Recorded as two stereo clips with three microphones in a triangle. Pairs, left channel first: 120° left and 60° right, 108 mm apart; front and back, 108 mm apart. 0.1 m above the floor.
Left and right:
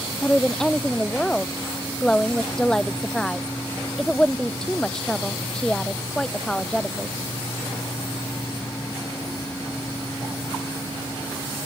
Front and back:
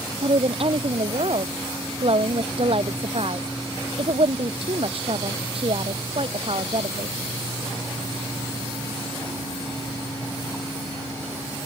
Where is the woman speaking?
160° right.